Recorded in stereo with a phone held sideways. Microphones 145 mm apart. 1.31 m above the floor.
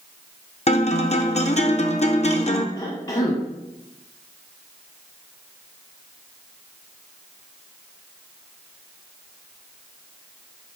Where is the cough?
35° left (ahead or behind), 1.0 m.